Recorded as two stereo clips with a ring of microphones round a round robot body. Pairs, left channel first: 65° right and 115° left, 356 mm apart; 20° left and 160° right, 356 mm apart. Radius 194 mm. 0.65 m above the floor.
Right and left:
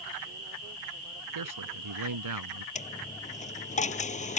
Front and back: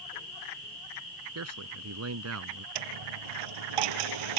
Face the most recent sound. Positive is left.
turn(degrees=-140)